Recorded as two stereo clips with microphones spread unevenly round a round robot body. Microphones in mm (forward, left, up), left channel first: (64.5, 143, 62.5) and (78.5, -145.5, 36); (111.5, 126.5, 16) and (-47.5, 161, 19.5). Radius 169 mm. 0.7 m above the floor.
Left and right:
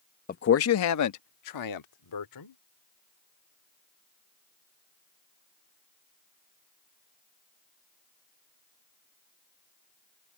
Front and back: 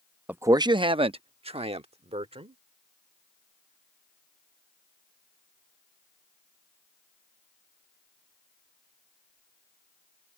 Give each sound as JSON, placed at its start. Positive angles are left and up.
{"t": 0.3, "sound": "a man speaking", "azimuth_deg": 95}